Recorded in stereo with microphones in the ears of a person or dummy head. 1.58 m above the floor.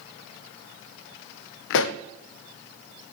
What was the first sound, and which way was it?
A pop, 65° left (ahead or behind).